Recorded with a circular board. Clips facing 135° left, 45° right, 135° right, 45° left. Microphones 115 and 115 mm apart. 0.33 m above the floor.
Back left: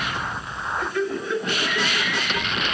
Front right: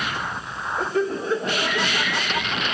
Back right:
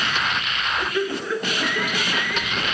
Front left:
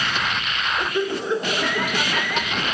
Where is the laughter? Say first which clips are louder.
Front right 3 dB, front left 1 dB; 20° right, 1.9 m; by 2.7 s 10° left, 3 m.